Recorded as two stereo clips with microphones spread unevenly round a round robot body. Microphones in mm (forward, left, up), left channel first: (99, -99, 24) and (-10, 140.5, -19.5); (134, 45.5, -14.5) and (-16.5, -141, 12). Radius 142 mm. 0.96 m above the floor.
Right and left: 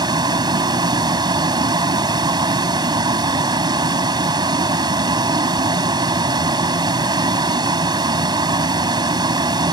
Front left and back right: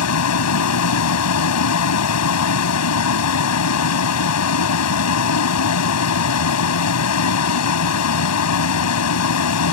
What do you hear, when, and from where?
0.0 s a vehicle: 40° left